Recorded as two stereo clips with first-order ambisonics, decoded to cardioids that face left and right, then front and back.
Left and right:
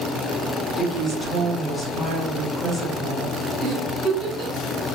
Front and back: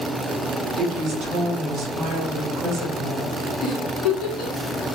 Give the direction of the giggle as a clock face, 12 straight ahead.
12 o'clock.